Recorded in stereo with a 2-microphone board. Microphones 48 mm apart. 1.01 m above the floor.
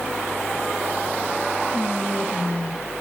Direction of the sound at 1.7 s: 30° left (ahead or behind).